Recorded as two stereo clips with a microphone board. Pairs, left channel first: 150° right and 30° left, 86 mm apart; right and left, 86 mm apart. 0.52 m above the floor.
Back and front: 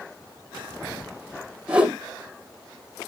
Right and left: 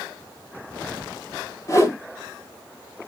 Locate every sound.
1.7 s a whoosh: 45° right, 1.9 m